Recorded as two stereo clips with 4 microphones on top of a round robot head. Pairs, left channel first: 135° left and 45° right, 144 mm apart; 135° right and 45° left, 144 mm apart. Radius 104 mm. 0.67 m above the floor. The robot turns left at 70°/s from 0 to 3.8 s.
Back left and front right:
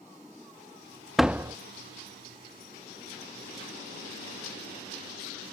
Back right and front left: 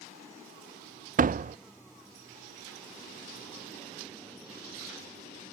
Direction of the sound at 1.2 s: 45° left.